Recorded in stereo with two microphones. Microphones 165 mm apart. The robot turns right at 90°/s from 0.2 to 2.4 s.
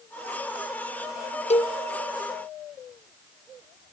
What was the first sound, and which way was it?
A cowbell, 40° left (ahead or behind).